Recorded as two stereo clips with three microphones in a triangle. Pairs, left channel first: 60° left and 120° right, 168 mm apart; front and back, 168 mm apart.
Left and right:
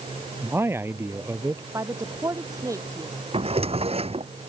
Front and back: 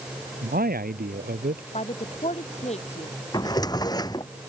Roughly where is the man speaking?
Behind.